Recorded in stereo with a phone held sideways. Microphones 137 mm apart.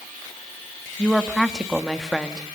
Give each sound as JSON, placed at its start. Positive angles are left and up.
{"t": 1.0, "sound": "a woman speaking", "side_deg": 0, "distance_m": 2.0}